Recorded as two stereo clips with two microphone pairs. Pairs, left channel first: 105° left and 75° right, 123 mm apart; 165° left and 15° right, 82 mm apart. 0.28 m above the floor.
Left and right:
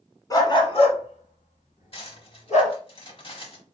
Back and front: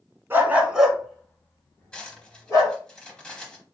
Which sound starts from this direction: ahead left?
A dog barking, at 0.3 s.